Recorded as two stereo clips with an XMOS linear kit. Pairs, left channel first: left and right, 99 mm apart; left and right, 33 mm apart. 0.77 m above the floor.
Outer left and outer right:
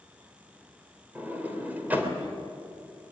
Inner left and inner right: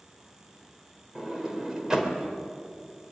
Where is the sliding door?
20° right (ahead or behind), 3 m.